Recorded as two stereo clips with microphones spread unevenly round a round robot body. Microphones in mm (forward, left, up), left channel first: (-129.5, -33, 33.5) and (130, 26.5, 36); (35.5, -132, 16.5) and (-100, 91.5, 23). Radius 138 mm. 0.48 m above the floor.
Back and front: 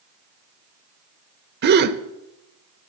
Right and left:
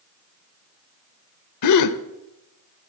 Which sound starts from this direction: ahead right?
A gasp, at 1.6 s.